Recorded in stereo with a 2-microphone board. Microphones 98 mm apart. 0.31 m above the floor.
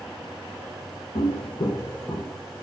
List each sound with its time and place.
1.1 s footsteps: 75° left (ahead or behind), 0.9 m; by 2.4 s 10° right (ahead or behind), 0.9 m